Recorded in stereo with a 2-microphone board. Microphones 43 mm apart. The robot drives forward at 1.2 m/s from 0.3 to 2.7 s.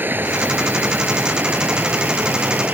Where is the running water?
50° right (ahead or behind); by 2.8 s 40° right (ahead or behind).